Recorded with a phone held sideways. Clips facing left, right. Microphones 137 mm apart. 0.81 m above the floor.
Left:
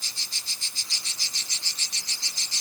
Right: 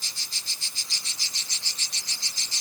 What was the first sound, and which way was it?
Only background noise.